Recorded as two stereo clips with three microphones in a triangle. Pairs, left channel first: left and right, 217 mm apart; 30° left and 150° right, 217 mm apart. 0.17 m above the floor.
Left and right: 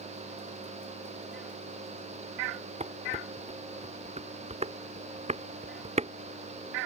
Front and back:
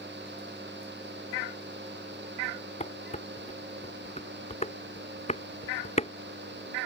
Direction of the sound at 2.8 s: 30° right.